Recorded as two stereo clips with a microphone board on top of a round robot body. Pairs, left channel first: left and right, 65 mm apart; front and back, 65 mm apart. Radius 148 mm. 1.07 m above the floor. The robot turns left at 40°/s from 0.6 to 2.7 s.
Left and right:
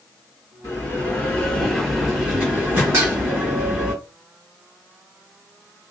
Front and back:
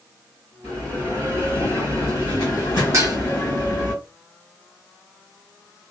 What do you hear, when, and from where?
0.6 s a bell: 50° left, 2 m; by 3.9 s 30° right, 2 m
2.9 s dishes clattering: 135° right, 0.9 m